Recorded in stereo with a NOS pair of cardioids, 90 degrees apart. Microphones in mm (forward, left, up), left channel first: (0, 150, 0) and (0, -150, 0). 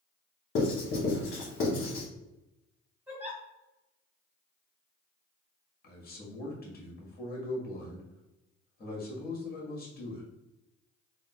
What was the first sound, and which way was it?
Writing, 45° left.